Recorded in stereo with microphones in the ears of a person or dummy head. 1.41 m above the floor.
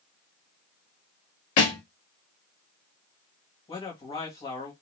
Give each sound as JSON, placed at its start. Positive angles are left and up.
{"t": 1.6, "sound": "a thud", "side_deg": 40, "distance_m": 1.1}
{"t": 3.7, "sound": "a man speaking", "side_deg": 30, "distance_m": 1.5}